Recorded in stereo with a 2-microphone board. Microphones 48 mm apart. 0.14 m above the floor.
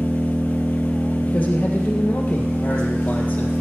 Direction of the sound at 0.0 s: 50° right (ahead or behind).